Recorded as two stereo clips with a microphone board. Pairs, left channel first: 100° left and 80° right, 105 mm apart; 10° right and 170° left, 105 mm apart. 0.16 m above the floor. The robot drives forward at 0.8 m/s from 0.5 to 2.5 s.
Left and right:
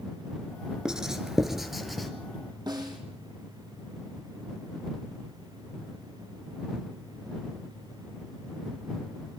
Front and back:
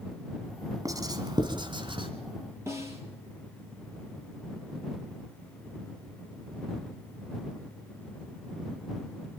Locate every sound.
0.8 s writing: 155° right, 1.6 m; by 2.1 s 170° right, 2.5 m
2.7 s a snare drum: 125° right, 4 m